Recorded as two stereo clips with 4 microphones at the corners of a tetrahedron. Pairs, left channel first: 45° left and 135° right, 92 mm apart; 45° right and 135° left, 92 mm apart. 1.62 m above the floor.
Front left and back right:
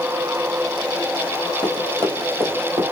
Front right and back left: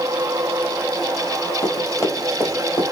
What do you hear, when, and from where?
1.6 s running footsteps: 110° right, 2.5 m; by 2.8 s 75° right, 2.5 m